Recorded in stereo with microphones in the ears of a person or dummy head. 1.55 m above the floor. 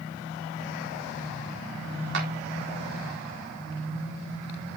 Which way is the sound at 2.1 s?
60° right (ahead or behind).